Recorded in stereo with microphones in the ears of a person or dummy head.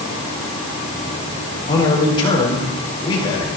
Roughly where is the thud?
I don't hear a thud.